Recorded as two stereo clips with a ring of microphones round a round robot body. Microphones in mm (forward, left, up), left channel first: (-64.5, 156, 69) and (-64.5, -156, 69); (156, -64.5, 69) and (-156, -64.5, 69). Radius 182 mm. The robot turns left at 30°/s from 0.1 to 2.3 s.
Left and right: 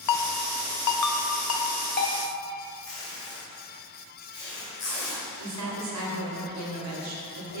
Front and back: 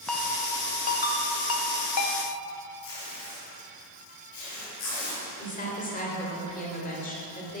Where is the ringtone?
90° left, 0.7 m; by 2.2 s 25° left, 0.7 m.